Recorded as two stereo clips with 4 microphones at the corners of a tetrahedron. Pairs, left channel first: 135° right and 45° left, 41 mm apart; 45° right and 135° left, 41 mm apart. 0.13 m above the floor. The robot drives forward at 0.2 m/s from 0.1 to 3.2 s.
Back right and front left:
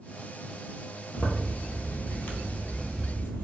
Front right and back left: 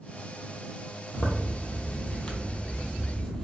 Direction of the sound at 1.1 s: 85° right.